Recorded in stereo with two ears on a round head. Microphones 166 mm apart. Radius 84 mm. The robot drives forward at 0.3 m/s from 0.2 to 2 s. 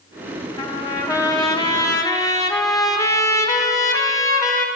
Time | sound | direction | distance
0.6 | a trumpet | 20° left (ahead or behind) | 0.8 m